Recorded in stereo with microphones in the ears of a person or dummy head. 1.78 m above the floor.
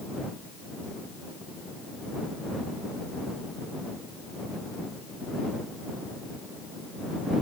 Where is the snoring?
I don't hear snoring.